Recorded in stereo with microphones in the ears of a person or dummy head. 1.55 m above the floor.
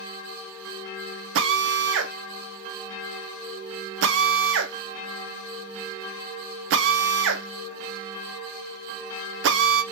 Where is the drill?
65° right (ahead or behind), 0.6 m.